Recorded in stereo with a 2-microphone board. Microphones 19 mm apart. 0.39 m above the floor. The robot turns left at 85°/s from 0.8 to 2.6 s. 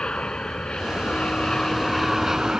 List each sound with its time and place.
0.0 s an aircraft: 65° left (ahead or behind); by 2.6 s 40° right (ahead or behind)